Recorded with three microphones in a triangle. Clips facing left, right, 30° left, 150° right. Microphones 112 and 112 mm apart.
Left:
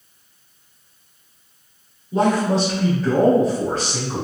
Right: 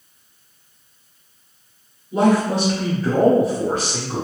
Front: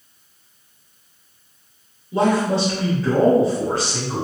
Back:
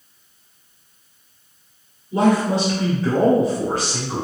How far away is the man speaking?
About 1.8 m.